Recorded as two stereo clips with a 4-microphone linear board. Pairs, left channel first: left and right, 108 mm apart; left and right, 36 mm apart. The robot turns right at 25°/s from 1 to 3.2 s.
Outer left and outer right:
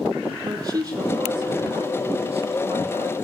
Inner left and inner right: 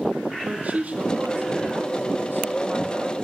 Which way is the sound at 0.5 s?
140° right.